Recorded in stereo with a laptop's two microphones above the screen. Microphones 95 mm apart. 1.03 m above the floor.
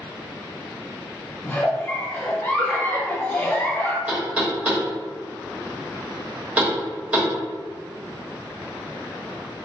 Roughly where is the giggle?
Centre.